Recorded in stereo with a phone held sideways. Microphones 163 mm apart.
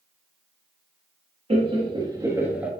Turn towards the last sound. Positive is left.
turn(degrees=-5)  # may be behind; listen again after turning